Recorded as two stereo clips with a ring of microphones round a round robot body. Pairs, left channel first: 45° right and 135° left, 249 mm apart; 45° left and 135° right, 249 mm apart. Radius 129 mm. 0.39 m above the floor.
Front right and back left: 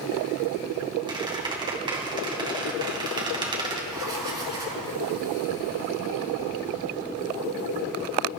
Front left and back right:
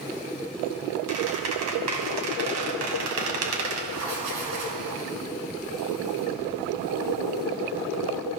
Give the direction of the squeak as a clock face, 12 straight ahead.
5 o'clock.